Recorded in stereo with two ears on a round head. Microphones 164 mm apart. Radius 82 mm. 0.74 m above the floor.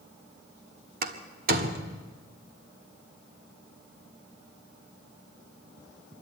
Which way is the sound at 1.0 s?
50° right (ahead or behind).